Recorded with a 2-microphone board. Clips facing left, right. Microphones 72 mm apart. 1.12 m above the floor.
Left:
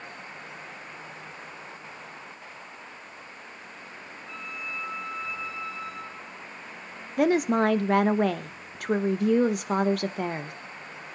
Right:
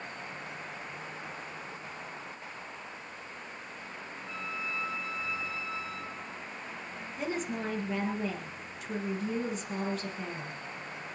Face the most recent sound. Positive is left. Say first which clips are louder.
# left 13 dB
turn(degrees=70)  # may be behind; listen again after turning